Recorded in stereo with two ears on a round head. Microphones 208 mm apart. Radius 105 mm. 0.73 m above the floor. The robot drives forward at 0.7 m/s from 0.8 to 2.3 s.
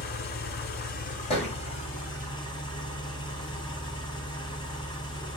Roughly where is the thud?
Left.